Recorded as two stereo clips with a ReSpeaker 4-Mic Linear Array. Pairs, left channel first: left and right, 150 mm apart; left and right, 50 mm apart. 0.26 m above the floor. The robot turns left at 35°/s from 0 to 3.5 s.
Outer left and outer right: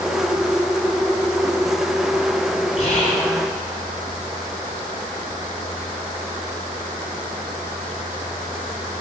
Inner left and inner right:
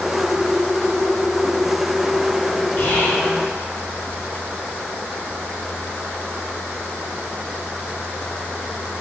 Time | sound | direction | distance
2.8 | whispering | 40° left (ahead or behind) | 2 m